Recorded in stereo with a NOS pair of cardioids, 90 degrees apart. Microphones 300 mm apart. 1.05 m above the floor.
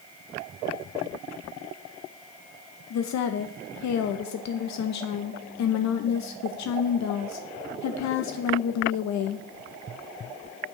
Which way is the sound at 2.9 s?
65° left.